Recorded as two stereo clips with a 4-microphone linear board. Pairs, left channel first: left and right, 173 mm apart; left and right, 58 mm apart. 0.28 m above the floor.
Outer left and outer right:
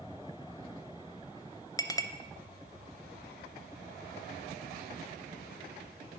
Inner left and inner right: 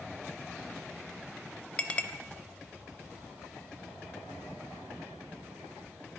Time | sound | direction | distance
1.8 | a clink | 20° left (ahead or behind) | 0.5 m